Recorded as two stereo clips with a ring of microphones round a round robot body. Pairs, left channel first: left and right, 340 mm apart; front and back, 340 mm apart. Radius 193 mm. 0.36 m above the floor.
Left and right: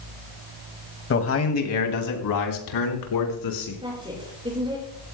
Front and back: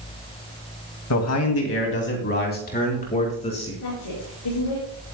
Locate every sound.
1.1 s a man speaking: 40° left, 2.5 m; by 3.7 s 75° left, 4.5 m
3.8 s a woman speaking: 15° right, 6.5 m